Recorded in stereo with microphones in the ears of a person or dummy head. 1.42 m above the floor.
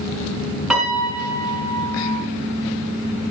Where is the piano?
5° right (ahead or behind), 4.5 m.